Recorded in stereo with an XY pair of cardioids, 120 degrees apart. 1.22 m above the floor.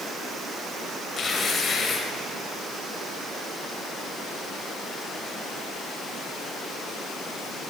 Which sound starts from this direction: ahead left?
Tearing paper, at 1.2 s.